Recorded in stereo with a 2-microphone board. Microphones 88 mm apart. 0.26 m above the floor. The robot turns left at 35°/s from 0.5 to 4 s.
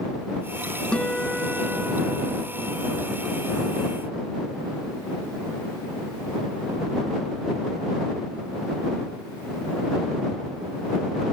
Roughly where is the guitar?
Ahead.